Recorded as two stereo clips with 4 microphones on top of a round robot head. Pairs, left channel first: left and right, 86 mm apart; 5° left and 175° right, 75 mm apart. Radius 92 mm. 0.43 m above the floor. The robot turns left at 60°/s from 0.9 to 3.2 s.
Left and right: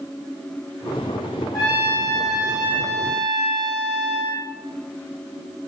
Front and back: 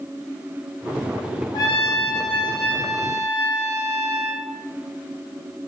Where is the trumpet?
40° left, 5.5 m; by 4.4 s 60° right, 5.5 m.